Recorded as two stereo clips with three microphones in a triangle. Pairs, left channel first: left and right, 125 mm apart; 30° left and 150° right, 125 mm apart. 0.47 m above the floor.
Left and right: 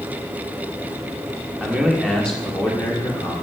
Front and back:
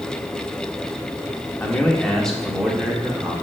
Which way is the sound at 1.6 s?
15° right.